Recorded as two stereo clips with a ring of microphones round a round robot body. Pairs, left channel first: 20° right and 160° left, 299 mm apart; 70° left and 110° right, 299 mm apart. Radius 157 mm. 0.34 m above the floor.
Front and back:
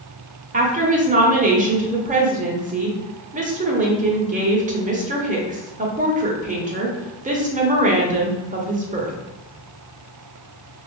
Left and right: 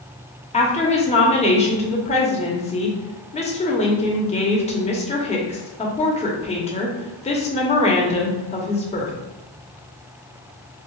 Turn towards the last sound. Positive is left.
turn(degrees=115)